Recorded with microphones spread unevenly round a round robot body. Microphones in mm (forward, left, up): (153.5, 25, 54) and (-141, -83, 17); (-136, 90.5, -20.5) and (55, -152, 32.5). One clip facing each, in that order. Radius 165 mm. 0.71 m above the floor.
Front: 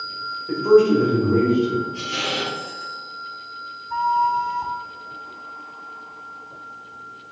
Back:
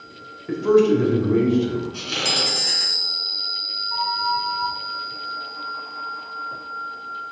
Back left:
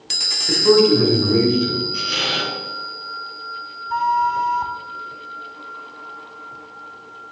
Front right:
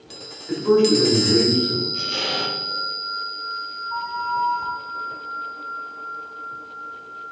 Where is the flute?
100° left, 0.8 m.